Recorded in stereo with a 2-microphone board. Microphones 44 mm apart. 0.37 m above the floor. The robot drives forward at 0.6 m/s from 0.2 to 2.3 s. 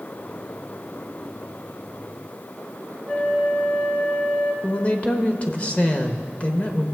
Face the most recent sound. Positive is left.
turn(degrees=30)  # may be behind; listen again after turning